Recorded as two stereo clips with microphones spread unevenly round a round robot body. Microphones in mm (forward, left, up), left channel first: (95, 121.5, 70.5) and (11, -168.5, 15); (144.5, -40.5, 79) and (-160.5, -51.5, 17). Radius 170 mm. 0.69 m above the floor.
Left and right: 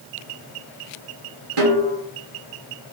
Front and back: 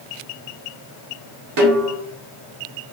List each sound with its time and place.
1.6 s a snare drum: 155° right, 1.3 m